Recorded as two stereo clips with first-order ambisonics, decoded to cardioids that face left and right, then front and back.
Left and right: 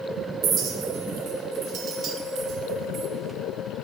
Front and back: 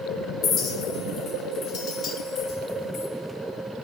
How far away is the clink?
About 0.6 m.